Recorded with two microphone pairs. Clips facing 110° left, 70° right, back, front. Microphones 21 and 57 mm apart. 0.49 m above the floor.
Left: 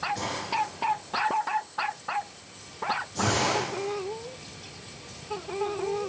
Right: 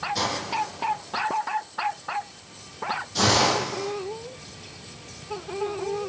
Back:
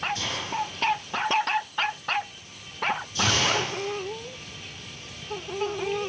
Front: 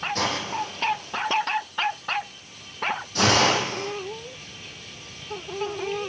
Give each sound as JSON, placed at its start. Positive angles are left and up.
{"t": 0.1, "sound": "a hiss", "azimuth_deg": -35, "distance_m": 7.0}